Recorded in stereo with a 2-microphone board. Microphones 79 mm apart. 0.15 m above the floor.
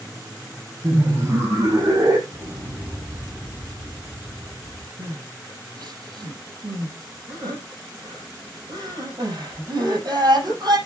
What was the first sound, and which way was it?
Laughter, 30° right (ahead or behind).